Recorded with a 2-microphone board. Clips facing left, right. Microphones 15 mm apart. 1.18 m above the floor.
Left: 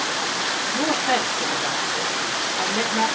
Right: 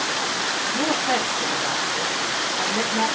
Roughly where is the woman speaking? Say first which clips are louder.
Left 1 dB; centre.